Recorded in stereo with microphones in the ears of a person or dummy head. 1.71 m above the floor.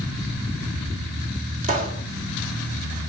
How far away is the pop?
About 1.8 m.